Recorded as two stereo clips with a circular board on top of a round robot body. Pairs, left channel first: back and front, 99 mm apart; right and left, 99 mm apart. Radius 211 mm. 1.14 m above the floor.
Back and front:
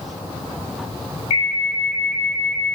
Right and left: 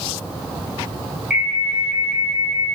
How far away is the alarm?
About 3 m.